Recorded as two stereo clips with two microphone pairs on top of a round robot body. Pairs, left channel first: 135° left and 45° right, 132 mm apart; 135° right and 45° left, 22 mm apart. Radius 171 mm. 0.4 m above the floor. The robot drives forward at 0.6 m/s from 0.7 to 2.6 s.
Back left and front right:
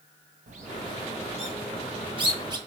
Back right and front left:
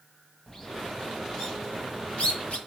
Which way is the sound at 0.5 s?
65° right.